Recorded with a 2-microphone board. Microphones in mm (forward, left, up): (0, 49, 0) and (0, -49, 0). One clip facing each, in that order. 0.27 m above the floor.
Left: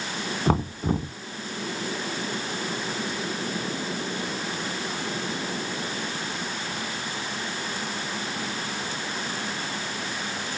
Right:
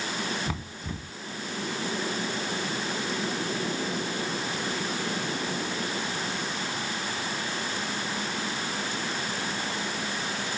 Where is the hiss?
No hiss in this recording.